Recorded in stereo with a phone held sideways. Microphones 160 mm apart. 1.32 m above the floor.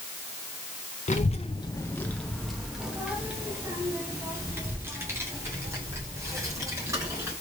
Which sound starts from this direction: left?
A child speaking, at 1.1 s.